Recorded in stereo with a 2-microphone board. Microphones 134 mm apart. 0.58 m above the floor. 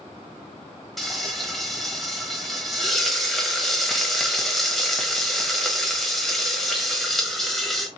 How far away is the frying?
About 0.8 m.